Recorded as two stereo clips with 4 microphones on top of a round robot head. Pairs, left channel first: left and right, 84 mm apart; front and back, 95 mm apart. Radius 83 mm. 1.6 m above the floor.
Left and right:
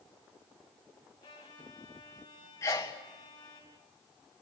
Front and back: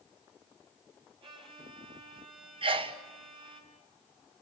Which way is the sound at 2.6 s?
155° left.